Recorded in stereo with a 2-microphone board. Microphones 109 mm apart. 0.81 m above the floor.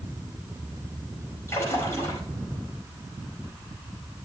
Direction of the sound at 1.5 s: 25° left (ahead or behind).